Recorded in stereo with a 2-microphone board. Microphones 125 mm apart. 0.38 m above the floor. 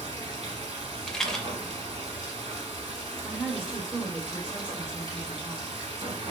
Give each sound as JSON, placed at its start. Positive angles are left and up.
{"t": 0.0, "sound": "running water", "side_deg": -55, "distance_m": 1.2}
{"t": 1.1, "sound": "a rattle", "side_deg": 5, "distance_m": 0.5}
{"t": 3.2, "sound": "a woman speaking", "side_deg": -10, "distance_m": 1.3}